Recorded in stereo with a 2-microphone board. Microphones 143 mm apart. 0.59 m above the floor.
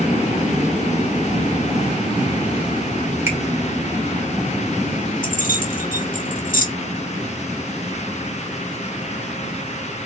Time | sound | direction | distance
3.3 | a finger snap | 15° right (ahead or behind) | 2 m
5.2 | keys jangling | 75° left (ahead or behind) | 1.3 m